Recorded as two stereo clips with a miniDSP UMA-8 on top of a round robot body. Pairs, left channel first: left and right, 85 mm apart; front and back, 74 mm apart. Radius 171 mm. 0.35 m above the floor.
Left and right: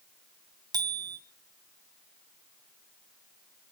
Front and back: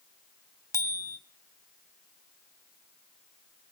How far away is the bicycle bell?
About 3 m.